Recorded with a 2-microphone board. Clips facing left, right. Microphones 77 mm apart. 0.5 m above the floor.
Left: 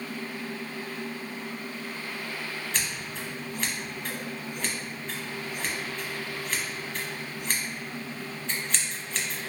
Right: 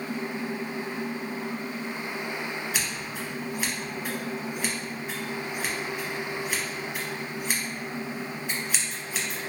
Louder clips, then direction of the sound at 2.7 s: Right 2 dB; 5° right (ahead or behind).